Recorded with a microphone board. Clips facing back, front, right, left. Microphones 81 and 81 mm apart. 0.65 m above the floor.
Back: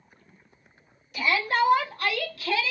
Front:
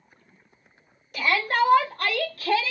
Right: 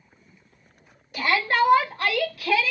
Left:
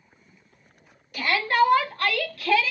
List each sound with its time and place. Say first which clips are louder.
1.1 s a shout: front 1 dB, left 1 dB; 30° right, 2.0 m; by 2.7 s 5° right, 1.1 m